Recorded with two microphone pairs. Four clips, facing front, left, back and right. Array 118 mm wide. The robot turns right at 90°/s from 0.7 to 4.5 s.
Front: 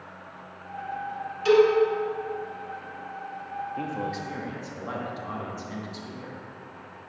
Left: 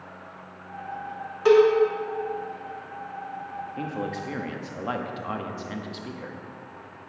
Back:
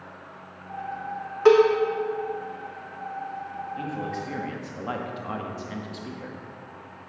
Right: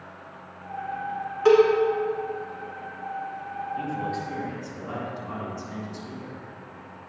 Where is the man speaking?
45° left, 1.1 m; by 6.4 s 115° left, 1.1 m.